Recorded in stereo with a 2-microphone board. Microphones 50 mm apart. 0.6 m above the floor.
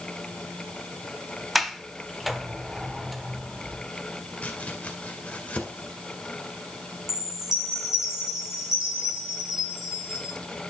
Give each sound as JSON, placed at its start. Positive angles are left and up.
{"t": 1.6, "sound": "a sliding door", "side_deg": -5, "distance_m": 1.0}
{"t": 4.4, "sound": "chopping", "side_deg": 25, "distance_m": 2.0}
{"t": 7.1, "sound": "a chime", "side_deg": -10, "distance_m": 4.0}